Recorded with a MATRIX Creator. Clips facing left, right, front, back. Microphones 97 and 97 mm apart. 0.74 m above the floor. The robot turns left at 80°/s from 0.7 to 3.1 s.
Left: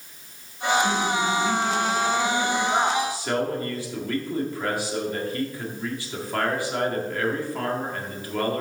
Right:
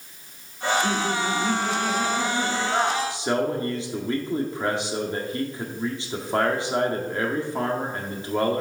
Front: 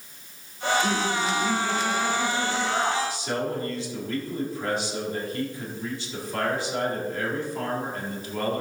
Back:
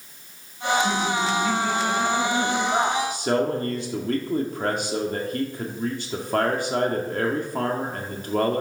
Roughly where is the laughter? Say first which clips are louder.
Left 1 dB, back 2 dB; ahead.